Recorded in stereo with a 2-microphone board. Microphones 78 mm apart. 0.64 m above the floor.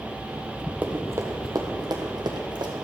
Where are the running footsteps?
20° right (ahead or behind), 1.0 m; by 2.7 s 70° right (ahead or behind), 1.8 m.